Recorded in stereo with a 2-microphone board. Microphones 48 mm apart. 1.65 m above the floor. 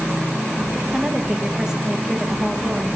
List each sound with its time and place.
0.9 s a woman speaking: 15° right (ahead or behind), 1.4 m